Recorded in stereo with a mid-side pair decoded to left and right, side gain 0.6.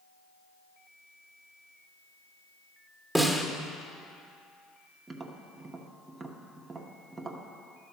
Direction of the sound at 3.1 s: 5° right.